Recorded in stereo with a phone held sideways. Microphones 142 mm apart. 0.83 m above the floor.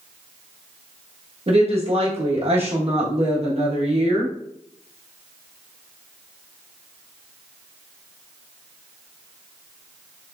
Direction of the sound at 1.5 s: 45° right (ahead or behind).